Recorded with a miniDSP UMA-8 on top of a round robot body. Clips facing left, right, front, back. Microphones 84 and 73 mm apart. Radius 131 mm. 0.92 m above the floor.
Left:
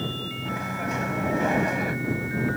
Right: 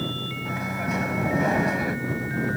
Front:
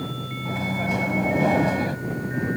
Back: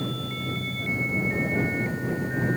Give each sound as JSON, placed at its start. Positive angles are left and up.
{"t": 0.5, "sound": "a microwave", "azimuth_deg": -5}